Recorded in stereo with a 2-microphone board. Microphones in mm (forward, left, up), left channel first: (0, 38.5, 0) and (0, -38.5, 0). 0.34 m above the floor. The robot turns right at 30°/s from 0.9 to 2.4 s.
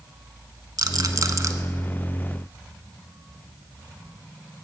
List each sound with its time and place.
0.8 s a rattle: 60° right (ahead or behind), 0.9 m; by 1.5 s 40° right (ahead or behind), 0.9 m